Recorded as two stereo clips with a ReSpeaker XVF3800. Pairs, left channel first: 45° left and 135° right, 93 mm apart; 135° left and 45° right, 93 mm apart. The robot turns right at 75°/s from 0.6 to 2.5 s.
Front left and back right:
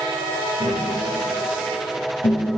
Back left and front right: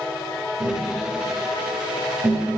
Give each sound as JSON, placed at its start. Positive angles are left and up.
{"t": 0.6, "sound": "tapping", "azimuth_deg": -90, "distance_m": 3.0}